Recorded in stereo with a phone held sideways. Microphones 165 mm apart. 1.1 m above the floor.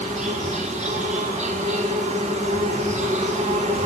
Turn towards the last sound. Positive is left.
turn(degrees=-45)  # may be behind; listen again after turning